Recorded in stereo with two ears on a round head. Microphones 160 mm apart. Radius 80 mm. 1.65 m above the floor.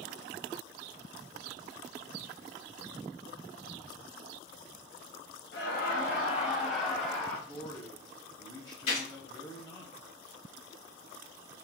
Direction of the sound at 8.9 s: 45° left (ahead or behind).